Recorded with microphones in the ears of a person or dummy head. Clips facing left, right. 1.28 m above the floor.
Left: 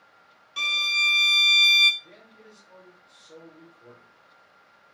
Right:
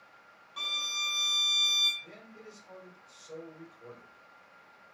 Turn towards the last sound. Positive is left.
turn(degrees=-70)  # may be behind; listen again after turning